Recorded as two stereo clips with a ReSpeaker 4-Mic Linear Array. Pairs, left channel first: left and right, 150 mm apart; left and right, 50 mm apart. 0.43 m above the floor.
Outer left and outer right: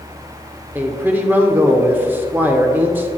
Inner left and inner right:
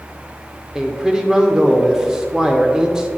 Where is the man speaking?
15° right (ahead or behind), 0.8 m.